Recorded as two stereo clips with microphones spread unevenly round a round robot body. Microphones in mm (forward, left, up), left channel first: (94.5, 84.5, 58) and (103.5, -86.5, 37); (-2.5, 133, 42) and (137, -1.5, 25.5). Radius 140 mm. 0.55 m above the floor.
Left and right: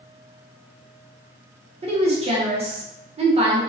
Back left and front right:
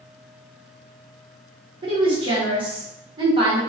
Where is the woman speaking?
90° right, 0.8 m.